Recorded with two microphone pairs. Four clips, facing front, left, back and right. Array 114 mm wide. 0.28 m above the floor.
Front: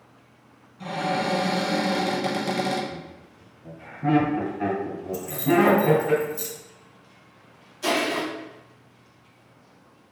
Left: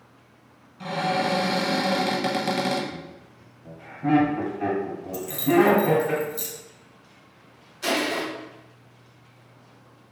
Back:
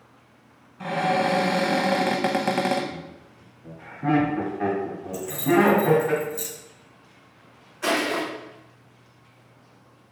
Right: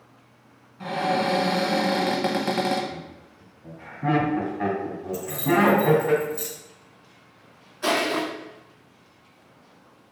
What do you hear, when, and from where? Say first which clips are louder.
0.8 s a cupboard door: right 1 dB, back 3 dB; 160° right, 0.6 m
2.9 s laughter: right 1 dB, even; 115° right, 2.0 m
5.1 s keys jangling: left 2 dB, even; 120° right, 0.6 m
7.8 s crushing: right 2 dB, even; 155° right, 1.3 m